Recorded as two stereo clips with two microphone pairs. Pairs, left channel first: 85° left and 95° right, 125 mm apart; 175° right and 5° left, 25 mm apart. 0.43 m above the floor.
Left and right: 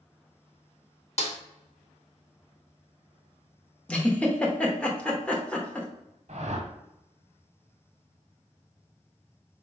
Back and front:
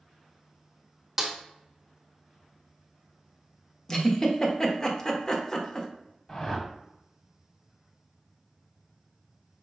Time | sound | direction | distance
1.2 | a snare drum | 85° left | 0.9 m
3.9 | a giggle | 155° left | 0.8 m
6.3 | a whoosh | 110° right | 0.8 m